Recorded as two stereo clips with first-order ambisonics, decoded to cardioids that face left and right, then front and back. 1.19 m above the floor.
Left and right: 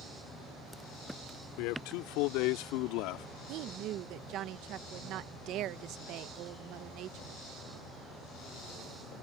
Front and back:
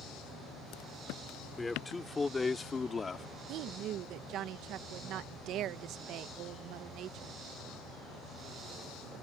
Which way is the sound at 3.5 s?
135° right.